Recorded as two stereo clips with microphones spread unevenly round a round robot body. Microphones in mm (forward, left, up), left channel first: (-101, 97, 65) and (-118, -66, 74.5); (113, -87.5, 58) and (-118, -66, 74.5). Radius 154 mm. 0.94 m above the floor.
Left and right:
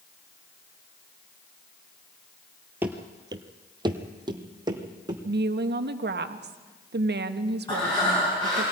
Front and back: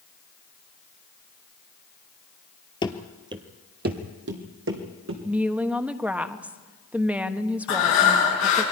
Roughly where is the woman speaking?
Right.